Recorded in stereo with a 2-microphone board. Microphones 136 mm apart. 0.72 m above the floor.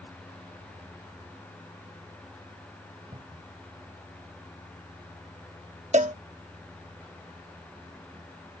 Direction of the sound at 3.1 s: 40° right (ahead or behind).